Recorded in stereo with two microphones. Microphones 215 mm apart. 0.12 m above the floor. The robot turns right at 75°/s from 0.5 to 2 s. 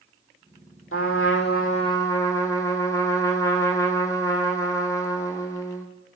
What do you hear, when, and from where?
0.9 s a trumpet: 85° left, 1.2 m; by 5.9 s 165° left, 1.2 m